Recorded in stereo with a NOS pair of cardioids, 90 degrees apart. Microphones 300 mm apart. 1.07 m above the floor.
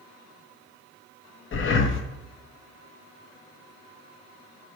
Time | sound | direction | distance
1.5 | breathing | 40° left | 0.7 m